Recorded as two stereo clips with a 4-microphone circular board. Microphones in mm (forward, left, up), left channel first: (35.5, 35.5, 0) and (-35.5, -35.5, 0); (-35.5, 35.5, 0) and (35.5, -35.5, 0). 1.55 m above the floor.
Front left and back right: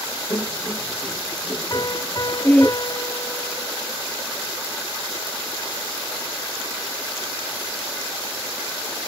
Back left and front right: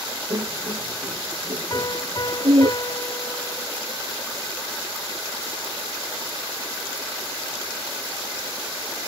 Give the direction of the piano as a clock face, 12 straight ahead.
9 o'clock.